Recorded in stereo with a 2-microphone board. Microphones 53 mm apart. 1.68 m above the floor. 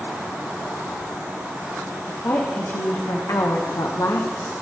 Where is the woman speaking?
60° left (ahead or behind), 1.7 m; by 4.5 s 70° left (ahead or behind), 1.2 m.